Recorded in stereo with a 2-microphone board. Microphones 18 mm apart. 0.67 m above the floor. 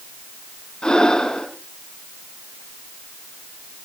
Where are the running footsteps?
No running footsteps in this recording.